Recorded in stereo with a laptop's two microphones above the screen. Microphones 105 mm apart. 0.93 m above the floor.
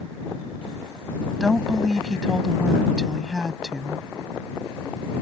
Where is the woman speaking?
Centre (ahead or behind).